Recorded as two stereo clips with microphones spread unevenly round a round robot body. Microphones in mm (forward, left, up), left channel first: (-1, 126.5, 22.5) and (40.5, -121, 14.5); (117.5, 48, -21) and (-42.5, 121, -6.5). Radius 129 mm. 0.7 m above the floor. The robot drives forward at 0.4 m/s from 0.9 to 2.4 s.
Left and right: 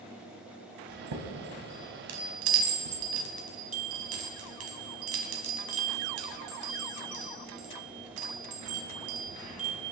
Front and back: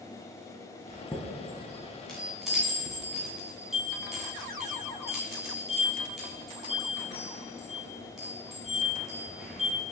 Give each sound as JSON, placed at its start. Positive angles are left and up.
{"t": 0.9, "sound": "a chime", "azimuth_deg": -100, "distance_m": 1.8}